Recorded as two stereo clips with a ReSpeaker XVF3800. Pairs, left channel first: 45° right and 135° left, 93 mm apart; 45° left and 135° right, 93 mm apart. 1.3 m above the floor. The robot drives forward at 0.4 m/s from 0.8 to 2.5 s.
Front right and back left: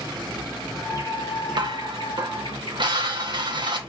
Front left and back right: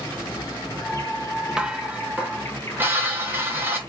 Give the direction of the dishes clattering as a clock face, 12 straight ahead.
7 o'clock.